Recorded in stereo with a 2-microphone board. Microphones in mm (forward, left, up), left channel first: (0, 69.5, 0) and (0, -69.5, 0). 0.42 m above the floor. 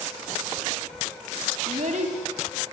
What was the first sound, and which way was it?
A child speaking, 60° right (ahead or behind).